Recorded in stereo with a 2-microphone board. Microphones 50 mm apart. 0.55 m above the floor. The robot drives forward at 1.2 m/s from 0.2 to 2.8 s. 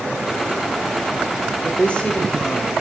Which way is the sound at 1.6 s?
30° left (ahead or behind).